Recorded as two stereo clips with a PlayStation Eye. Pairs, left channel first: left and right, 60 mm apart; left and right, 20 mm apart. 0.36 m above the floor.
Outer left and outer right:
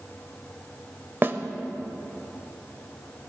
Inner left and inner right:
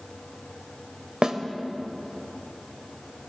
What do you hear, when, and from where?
1.2 s a snare drum: 40° right (ahead or behind), 0.8 m